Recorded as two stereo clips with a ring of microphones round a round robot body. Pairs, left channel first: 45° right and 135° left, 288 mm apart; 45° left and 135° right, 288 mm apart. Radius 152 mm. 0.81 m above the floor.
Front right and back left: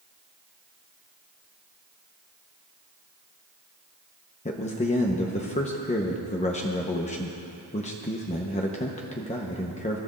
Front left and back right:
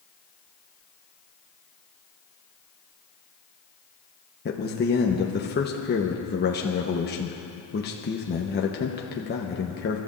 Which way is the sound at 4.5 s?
10° left.